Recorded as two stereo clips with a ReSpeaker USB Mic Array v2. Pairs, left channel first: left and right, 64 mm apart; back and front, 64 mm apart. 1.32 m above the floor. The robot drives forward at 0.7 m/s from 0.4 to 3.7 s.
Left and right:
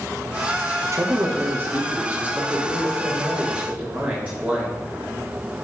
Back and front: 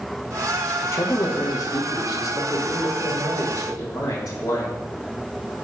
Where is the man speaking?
130° right, 1.0 m; by 4.7 s 165° right, 2.5 m.